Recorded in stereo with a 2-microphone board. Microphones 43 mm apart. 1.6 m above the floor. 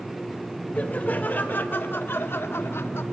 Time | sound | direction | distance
0.8 | laughter | 35° left (ahead or behind) | 2 m